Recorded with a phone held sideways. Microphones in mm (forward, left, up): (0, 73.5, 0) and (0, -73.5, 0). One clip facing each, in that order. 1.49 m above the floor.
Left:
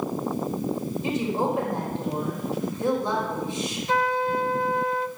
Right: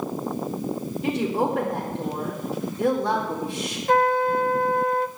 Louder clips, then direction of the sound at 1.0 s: Right 2 dB; 75° right (ahead or behind).